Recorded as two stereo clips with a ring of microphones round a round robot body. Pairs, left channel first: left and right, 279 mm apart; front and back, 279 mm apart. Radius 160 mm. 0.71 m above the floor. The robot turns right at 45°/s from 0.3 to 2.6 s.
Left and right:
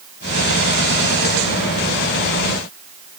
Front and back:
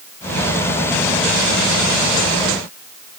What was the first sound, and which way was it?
Only background noise.